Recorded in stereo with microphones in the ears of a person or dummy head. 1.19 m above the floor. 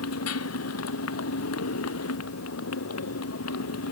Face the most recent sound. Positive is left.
turn(degrees=80)